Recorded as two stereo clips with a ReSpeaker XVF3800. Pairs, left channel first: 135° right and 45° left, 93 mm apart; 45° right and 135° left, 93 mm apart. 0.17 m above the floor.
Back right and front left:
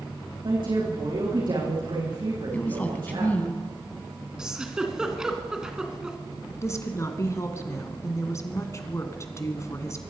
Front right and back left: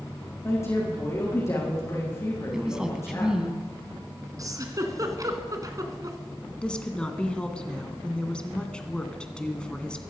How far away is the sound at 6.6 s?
About 1.6 m.